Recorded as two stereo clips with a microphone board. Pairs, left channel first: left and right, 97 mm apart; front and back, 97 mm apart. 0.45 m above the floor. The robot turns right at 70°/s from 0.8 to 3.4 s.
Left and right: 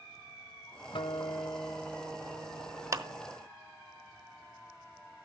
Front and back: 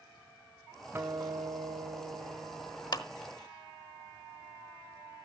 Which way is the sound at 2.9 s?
40° right.